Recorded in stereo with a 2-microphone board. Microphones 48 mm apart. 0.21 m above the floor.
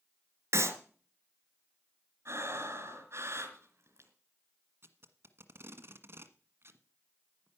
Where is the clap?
65° right (ahead or behind), 2 m.